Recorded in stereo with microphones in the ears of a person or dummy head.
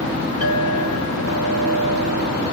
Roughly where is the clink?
Right.